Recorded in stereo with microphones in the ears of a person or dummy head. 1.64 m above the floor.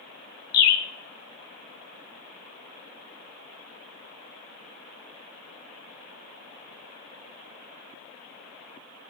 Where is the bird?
65° left (ahead or behind), 0.5 m.